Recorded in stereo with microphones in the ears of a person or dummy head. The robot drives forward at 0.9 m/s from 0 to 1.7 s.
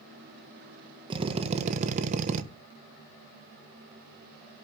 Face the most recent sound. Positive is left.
turn(degrees=-40)  # may be behind; listen again after turning